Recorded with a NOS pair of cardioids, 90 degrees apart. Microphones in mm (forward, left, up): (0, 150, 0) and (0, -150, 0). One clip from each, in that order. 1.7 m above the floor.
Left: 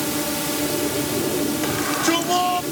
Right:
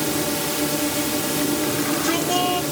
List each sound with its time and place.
0.0 s a drone: 20° right
1.6 s a shout: 30° left